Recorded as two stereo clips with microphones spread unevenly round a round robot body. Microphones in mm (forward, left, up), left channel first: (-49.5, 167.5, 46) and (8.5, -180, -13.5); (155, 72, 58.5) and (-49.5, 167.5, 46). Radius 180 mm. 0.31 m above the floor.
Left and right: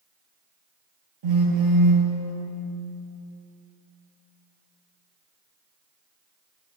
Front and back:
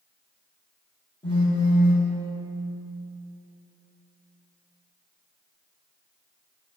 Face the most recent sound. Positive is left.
turn(degrees=-105)